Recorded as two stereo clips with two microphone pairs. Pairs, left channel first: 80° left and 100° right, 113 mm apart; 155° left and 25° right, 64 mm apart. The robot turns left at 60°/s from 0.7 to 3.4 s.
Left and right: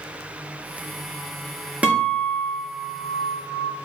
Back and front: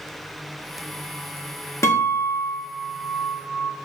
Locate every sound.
1.8 s a guitar: 175° right, 0.9 m; by 3.7 s 90° left, 0.9 m